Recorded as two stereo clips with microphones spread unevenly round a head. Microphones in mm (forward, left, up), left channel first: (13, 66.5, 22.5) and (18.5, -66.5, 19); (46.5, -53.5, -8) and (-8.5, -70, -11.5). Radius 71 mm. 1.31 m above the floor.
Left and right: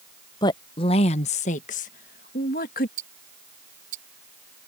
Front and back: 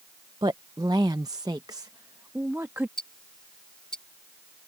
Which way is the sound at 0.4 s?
155° left.